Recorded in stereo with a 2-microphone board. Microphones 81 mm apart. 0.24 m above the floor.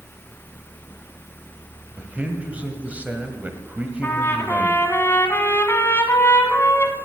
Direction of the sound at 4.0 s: 30° left (ahead or behind).